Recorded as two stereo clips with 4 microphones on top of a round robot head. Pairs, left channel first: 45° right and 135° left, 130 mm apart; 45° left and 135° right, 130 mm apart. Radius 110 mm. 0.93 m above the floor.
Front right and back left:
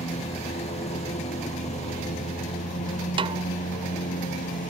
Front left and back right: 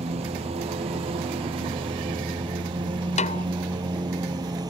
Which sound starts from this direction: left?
A snare drum, at 3.2 s.